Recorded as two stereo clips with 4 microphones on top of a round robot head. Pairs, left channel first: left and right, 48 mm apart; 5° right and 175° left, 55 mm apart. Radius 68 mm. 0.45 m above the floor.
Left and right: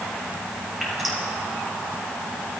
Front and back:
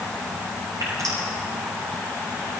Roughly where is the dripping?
Behind.